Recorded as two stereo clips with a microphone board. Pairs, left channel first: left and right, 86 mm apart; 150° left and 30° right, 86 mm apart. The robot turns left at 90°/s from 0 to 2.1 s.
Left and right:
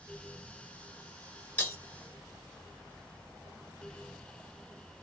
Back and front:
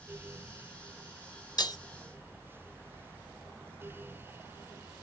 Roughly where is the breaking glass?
Behind left.